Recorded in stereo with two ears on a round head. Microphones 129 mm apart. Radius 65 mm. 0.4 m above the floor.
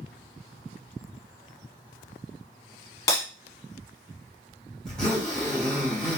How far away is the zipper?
About 2 m.